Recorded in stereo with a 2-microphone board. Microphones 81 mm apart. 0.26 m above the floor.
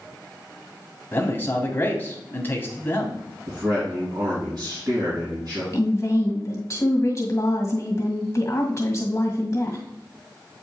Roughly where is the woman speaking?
Left.